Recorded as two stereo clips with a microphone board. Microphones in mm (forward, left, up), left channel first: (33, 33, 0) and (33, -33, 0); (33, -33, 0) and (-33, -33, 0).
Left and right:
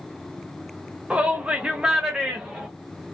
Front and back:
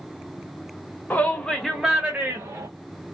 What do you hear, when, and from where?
1.1 s a shout: 35° right, 1.0 m; by 2.7 s 175° right, 1.2 m